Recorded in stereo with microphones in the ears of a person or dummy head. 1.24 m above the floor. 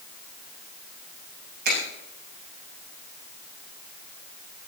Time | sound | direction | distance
1.6 | a finger snap | 55° right (ahead or behind) | 7.5 m